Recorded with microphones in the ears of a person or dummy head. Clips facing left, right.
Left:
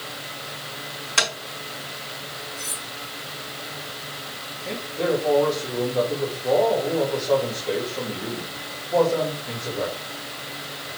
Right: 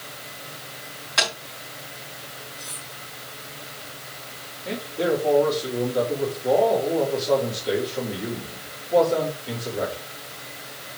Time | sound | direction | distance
1.2 | tapping | 35° left (ahead or behind) | 4.5 m
2.6 | cutlery clinking | 70° left (ahead or behind) | 3.5 m
4.7 | a man speaking | 5° right (ahead or behind) | 3.5 m